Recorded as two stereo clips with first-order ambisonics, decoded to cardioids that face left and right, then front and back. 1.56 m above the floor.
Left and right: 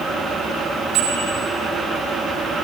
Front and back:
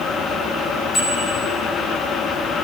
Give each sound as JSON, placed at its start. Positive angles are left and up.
{"t": 0.9, "sound": "a bicycle bell", "azimuth_deg": -65, "distance_m": 8.5}